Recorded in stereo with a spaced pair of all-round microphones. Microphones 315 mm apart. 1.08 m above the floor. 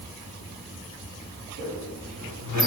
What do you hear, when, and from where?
1.6 s a squeak: 60° left (ahead or behind), 1.6 m